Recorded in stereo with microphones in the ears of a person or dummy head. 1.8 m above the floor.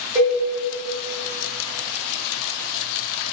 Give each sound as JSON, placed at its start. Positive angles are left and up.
{"t": 0.1, "sound": "a cowbell", "side_deg": -20, "distance_m": 1.6}